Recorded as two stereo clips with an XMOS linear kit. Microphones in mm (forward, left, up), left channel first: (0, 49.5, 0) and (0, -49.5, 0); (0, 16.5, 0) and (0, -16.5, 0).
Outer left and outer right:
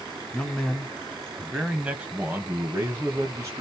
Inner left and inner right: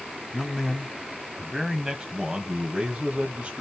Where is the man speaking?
10° left (ahead or behind), 1.6 m; by 3.6 s 35° right (ahead or behind), 1.6 m.